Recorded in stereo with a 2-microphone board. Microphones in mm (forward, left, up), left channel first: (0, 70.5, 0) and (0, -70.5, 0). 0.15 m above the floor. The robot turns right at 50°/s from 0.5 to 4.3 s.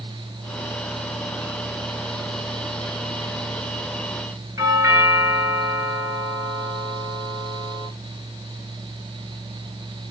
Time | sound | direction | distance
4.6 | a doorbell | 25° right (ahead or behind) | 3 m